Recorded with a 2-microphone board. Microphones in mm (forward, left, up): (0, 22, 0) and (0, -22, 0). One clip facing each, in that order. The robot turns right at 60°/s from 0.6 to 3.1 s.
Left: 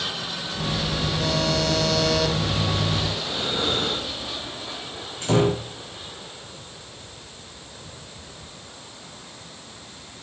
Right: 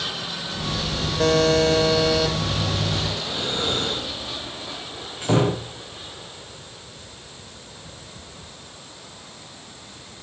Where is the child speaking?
No child speaking in this recording.